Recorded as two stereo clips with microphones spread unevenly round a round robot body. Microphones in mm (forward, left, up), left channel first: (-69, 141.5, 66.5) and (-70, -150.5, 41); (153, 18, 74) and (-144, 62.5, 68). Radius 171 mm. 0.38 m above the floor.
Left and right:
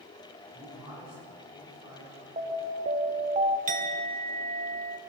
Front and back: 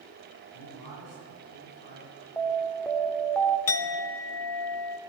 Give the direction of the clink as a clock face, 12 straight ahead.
1 o'clock.